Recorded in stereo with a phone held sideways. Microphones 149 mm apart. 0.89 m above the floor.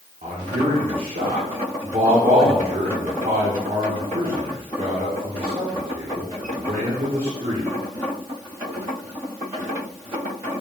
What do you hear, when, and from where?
0.2 s a man speaking: 70° right (ahead or behind), 2 m